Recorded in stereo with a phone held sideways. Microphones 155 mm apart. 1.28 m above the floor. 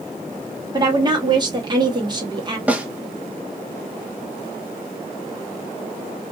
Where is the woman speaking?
30° right (ahead or behind), 1.2 m.